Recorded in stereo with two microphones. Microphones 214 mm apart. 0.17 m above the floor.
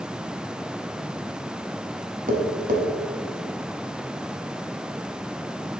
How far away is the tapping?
About 0.9 m.